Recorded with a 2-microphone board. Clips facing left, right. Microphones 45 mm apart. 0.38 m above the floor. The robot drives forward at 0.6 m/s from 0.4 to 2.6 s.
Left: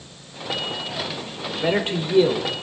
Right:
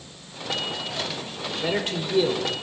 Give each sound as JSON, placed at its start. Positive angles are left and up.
{"t": 1.6, "sound": "a man speaking", "side_deg": 20, "distance_m": 0.9}